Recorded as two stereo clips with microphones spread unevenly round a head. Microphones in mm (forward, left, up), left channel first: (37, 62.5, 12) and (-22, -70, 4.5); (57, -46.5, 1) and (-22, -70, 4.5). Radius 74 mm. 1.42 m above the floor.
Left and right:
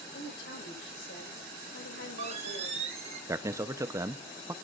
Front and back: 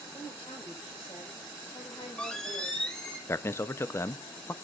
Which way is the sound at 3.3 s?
45° right.